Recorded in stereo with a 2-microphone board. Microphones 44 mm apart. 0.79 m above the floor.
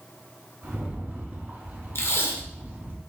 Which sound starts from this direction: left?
Tape being pulled, at 1.9 s.